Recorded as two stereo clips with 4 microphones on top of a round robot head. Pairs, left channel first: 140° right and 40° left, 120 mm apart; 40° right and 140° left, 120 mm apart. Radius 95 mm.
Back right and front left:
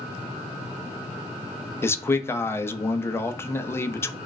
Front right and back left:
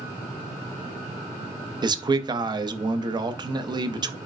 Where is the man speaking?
165° left, 0.7 m.